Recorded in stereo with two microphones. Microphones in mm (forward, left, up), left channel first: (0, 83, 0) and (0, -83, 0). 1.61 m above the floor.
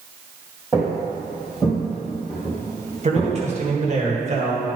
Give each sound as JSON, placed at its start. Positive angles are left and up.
{"t": 0.7, "sound": "footsteps", "side_deg": -20, "distance_m": 2.5}
{"t": 3.0, "sound": "a man speaking", "side_deg": -45, "distance_m": 1.6}